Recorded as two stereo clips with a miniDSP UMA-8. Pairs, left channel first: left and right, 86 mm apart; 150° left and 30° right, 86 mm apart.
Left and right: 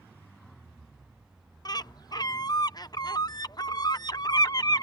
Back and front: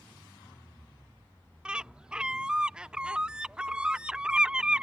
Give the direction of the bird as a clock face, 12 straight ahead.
10 o'clock.